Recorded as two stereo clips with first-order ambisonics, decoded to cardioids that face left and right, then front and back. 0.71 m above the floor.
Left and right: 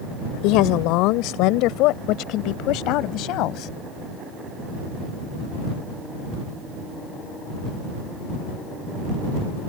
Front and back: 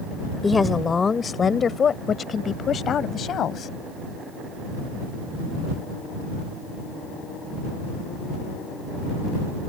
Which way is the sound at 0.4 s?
75° left.